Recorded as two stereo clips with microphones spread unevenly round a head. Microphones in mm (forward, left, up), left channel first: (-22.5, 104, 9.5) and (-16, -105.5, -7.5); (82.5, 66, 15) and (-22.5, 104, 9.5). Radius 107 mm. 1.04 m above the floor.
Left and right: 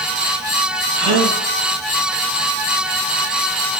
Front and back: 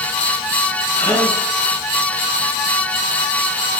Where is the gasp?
85° right, 3 m.